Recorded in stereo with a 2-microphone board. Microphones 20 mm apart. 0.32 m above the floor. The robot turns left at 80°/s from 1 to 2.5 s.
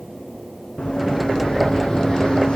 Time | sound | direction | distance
0.8 | running footsteps | 55° left (ahead or behind) | 1.3 m